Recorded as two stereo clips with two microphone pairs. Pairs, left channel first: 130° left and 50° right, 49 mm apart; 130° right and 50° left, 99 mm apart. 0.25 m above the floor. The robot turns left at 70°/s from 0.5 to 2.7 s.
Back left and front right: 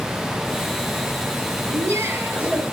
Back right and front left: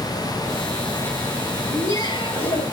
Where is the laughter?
60° right, 4.5 m; by 2.6 s 125° right, 4.5 m.